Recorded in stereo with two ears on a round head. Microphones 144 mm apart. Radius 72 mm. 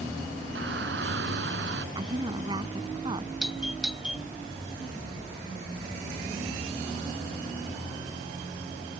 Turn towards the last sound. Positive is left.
turn(degrees=-5)  # may be behind; listen again after turning